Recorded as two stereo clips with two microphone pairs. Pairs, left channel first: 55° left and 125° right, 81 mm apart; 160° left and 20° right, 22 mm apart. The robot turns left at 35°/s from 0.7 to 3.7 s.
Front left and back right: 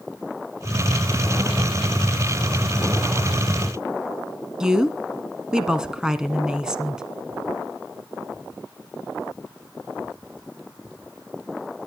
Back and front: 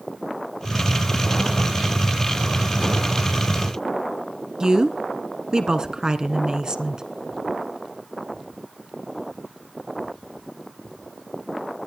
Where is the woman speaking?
50° right, 1.3 m.